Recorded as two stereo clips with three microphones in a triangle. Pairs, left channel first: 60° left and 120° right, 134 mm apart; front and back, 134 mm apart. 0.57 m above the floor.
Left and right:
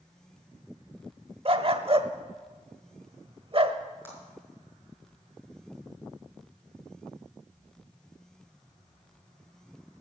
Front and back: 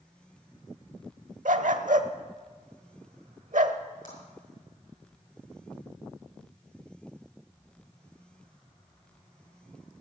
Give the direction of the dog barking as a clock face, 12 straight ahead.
5 o'clock.